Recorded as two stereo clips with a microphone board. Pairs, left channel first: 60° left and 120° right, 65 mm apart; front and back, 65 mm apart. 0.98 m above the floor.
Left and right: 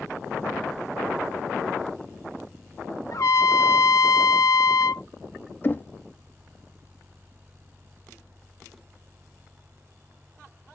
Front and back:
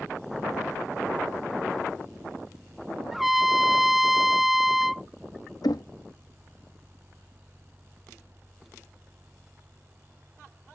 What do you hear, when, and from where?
3.1 s a trumpet: 95° left
5.6 s knocking: 5° left